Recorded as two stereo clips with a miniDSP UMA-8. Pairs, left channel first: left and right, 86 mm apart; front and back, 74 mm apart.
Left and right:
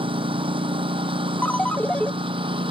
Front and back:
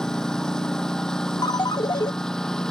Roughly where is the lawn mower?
Right.